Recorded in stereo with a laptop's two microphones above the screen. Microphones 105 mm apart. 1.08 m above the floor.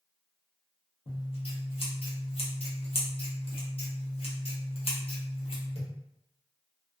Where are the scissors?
65° left (ahead or behind), 0.8 m.